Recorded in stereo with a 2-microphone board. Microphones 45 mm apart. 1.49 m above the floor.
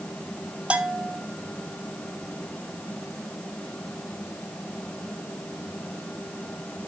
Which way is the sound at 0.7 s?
25° right (ahead or behind).